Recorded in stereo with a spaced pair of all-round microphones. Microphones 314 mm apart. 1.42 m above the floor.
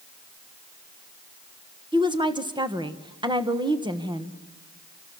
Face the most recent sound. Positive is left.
turn(degrees=-15)  # may be behind; listen again after turning